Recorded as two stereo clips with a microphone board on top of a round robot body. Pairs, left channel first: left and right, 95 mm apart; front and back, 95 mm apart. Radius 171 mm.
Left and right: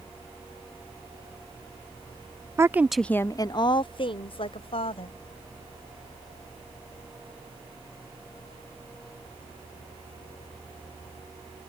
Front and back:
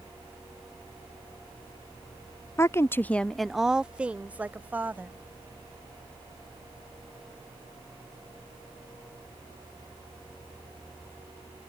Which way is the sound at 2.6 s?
45° right.